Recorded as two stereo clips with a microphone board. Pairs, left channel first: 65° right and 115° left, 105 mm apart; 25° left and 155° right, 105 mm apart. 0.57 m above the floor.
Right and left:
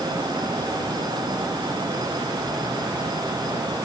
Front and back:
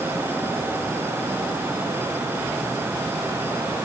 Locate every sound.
Only background noise.